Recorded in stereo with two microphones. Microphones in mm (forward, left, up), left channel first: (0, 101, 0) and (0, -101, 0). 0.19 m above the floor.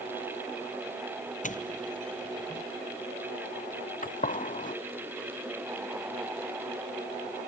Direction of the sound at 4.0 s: 40° left (ahead or behind).